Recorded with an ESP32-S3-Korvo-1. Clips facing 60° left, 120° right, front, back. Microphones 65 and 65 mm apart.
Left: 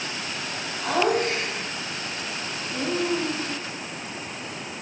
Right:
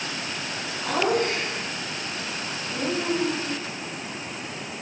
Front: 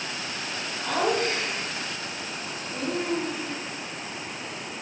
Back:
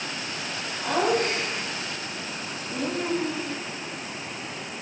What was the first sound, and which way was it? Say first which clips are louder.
Laughter: left 1 dB, back 2 dB; 120° left.